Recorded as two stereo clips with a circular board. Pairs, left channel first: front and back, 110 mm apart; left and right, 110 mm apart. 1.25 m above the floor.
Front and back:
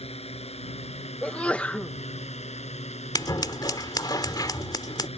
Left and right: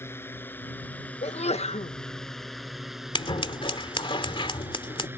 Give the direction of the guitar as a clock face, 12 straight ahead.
No guitar in this recording.